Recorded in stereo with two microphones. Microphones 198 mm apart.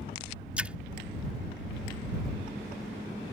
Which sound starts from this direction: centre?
A splash, at 0.6 s.